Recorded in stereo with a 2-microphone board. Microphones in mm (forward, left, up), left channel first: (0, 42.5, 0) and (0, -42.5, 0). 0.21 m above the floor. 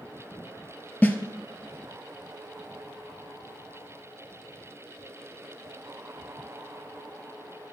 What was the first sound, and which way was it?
A snare drum, 20° left (ahead or behind).